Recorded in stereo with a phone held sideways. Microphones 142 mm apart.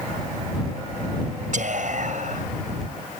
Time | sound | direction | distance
1.5 | whispering | 65° right (ahead or behind) | ?